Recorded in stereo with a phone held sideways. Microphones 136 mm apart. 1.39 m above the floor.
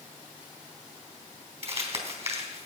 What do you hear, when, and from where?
1.6 s crumpling: 45° right (ahead or behind), 3.5 m